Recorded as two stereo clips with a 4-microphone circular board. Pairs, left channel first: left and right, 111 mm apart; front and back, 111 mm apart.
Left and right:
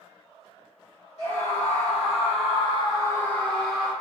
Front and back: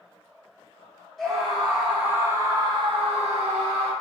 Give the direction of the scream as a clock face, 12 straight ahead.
9 o'clock.